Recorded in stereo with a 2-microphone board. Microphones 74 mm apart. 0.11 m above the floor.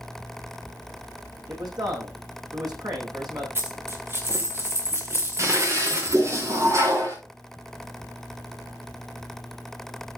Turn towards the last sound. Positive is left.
turn(degrees=-45)  # may be behind; listen again after turning